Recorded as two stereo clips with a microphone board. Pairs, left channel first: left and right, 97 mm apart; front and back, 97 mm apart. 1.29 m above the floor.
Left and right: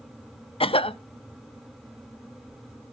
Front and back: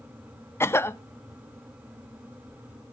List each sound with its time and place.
0.6 s a cough: 65° left, 0.5 m